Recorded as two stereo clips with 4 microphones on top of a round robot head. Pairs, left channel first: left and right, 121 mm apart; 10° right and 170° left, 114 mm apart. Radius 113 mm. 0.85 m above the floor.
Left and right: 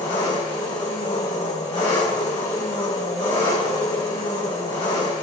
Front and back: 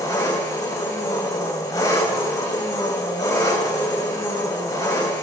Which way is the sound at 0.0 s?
45° left.